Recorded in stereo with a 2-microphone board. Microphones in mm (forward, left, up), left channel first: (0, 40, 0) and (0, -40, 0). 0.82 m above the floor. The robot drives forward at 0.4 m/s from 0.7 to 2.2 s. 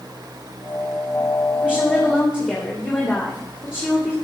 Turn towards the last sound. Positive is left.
turn(degrees=20)  # may be behind; listen again after turning